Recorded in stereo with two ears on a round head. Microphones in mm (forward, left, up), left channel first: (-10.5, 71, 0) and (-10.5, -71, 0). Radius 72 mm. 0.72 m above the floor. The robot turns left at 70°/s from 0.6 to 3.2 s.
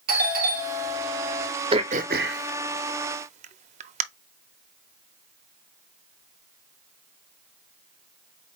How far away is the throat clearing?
About 0.5 m.